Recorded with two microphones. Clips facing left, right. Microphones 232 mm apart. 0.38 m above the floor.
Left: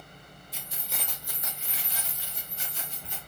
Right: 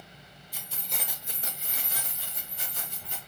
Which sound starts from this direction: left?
Keys jangling, at 0.5 s.